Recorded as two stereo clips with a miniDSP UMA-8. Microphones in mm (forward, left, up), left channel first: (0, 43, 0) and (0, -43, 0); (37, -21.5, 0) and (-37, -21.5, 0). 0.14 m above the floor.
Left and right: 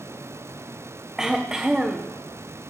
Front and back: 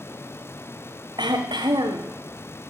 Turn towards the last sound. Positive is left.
turn(degrees=-175)